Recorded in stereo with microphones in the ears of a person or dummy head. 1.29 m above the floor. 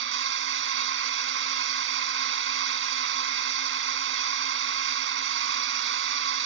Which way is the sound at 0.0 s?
70° right (ahead or behind).